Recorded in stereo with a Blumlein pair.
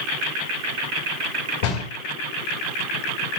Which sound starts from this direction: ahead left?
A door slam, at 1.6 s.